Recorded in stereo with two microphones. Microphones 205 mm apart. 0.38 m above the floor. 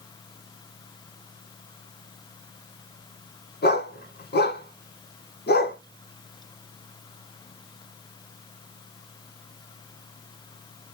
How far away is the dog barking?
About 1.5 m.